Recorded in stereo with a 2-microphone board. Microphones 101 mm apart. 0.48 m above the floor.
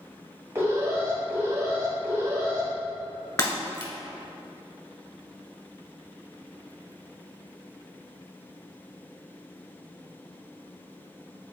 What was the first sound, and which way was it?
An alarm, 25° right (ahead or behind).